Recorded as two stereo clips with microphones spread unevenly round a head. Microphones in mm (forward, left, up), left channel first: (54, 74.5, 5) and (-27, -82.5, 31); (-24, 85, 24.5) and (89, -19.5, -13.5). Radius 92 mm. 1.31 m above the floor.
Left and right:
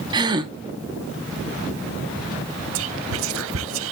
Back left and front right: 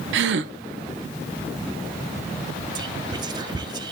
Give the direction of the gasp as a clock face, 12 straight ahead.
2 o'clock.